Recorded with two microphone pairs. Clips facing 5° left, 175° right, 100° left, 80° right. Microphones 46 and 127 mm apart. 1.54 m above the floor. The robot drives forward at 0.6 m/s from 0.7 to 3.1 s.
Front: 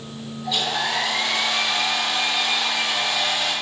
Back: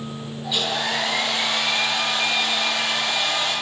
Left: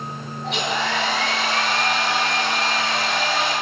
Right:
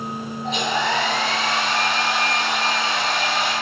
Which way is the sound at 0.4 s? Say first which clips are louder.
Front 1 dB, right 2 dB; 105° left.